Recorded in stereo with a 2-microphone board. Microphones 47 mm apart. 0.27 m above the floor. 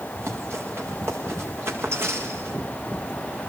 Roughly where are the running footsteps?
Right.